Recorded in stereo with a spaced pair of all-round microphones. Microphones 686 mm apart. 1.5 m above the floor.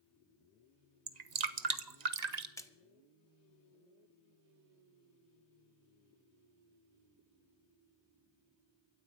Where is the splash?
5° left (ahead or behind), 1.0 m.